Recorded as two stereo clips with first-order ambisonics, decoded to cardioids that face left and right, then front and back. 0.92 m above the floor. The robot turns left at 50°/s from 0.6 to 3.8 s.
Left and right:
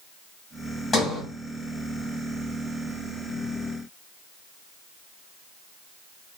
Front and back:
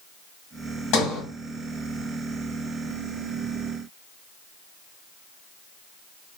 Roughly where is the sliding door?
Ahead.